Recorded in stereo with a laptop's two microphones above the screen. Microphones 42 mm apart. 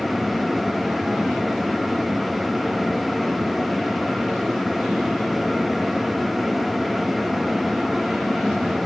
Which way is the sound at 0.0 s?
Centre (ahead or behind).